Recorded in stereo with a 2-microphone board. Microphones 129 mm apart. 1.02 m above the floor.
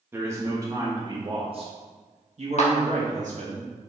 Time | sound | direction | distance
0.1 | a man speaking | 15° right (ahead or behind) | 1.6 m
2.6 | a clap | 60° left (ahead or behind) | 1.4 m